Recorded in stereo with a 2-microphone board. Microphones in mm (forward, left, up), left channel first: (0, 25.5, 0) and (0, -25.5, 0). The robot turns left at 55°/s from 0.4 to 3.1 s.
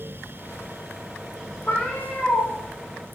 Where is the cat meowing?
100° left, 0.8 m; by 2.5 s 55° left, 0.8 m.